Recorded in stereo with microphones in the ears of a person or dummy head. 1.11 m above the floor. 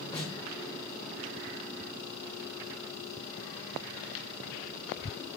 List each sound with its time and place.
0.1 s a snare drum: 30° left (ahead or behind), 1.5 m